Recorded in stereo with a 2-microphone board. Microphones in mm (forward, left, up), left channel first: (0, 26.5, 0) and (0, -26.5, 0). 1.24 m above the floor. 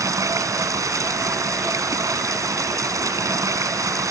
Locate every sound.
0.0 s running water: 85° right